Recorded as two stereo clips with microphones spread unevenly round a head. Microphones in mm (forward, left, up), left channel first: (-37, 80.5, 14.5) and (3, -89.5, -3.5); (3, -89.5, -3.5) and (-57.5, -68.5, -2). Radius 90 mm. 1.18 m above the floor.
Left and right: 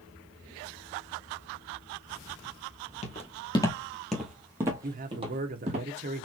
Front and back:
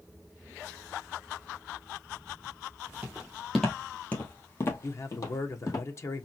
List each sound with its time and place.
3.0 s footsteps: 95° left, 1.5 m; by 5.8 s 25° right, 2 m
4.8 s a man speaking: 50° right, 1.0 m